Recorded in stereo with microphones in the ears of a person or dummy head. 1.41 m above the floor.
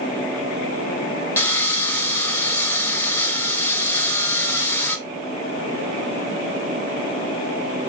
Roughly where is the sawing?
Centre.